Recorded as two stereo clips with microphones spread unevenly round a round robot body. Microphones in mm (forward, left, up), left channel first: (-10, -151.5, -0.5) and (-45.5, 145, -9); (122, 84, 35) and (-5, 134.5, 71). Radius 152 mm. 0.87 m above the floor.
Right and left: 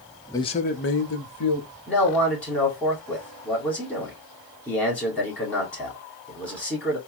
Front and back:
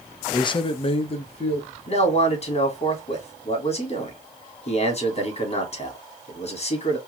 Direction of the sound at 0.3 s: 5° right.